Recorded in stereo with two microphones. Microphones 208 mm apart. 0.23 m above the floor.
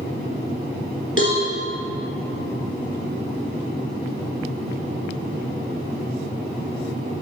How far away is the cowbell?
About 3 m.